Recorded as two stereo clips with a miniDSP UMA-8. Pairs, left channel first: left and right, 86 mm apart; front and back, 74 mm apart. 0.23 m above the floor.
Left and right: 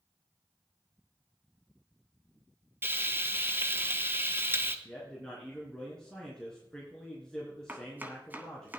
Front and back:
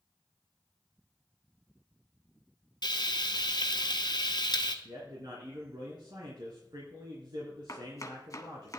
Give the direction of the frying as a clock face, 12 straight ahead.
1 o'clock.